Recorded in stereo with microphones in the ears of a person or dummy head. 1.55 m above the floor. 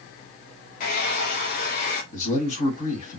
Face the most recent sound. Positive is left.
turn(degrees=45)  # may be behind; listen again after turning